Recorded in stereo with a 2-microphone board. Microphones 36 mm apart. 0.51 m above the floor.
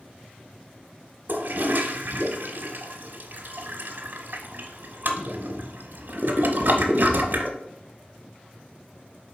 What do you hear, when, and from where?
1.3 s a toilet flushing: 60° right (ahead or behind), 0.8 m